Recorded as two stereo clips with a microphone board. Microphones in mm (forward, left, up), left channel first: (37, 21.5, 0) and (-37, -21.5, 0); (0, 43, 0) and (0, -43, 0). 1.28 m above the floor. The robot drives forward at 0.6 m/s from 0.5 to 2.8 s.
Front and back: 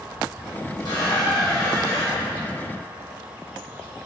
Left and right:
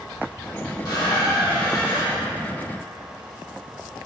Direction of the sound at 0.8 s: 60° left.